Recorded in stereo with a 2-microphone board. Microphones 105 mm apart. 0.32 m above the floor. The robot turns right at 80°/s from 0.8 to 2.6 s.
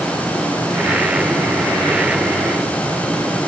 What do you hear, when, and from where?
Only background noise.